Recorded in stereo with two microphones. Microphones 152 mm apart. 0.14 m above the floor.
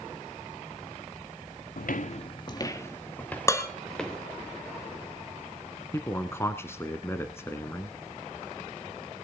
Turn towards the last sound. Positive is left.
turn(degrees=20)  # may be behind; listen again after turning